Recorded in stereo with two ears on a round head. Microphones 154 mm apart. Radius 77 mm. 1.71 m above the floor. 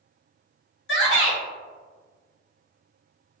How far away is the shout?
About 1.1 m.